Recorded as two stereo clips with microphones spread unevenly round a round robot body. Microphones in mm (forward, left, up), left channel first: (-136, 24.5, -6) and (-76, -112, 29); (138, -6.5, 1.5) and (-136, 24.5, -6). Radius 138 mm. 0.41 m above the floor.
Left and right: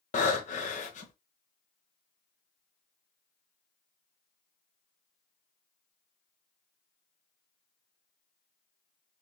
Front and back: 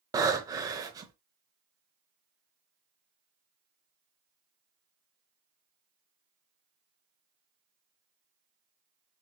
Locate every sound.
0.1 s breathing: 100° left, 0.7 m